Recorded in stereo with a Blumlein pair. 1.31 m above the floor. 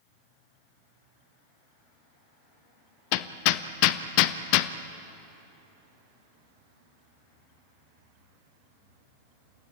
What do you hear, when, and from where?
3.1 s hammering: 45° left, 0.8 m